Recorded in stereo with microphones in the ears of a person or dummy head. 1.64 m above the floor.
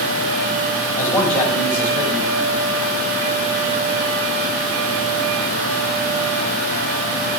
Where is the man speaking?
10° left (ahead or behind), 6 m.